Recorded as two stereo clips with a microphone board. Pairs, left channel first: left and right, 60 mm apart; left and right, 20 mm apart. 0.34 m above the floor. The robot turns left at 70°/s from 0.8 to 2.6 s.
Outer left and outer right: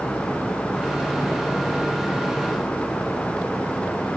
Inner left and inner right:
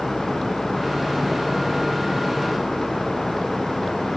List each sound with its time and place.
Only background noise.